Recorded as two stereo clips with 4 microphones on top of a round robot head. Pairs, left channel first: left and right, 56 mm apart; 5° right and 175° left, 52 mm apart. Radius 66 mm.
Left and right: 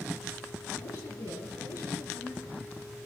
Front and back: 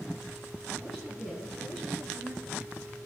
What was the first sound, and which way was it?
A woman speaking, 85° left.